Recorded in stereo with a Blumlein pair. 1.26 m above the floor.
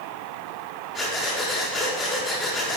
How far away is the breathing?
About 5 m.